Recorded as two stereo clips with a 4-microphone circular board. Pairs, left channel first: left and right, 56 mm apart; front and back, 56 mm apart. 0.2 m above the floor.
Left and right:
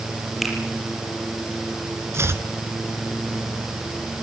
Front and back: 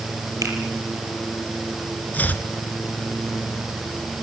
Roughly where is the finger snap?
Behind.